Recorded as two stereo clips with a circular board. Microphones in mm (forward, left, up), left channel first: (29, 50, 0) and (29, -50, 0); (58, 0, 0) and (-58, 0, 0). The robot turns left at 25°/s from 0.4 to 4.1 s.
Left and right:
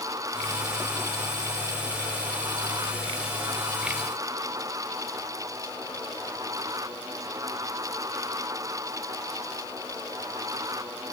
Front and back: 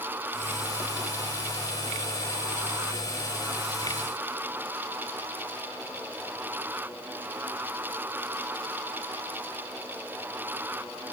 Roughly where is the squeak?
I don't hear a squeak.